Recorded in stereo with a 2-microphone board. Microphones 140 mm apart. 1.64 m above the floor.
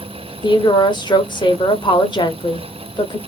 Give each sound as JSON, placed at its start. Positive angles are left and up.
{"t": 0.4, "sound": "a woman speaking", "side_deg": 30, "distance_m": 0.7}